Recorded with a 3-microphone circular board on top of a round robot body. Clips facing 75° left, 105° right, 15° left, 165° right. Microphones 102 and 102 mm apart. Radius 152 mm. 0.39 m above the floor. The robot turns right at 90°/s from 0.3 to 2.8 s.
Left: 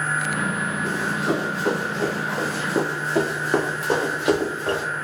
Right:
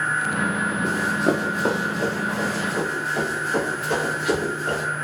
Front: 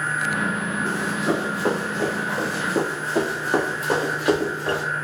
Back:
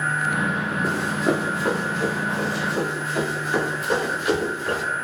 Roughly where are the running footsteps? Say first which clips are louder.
Right 3 dB, back 2 dB; behind right.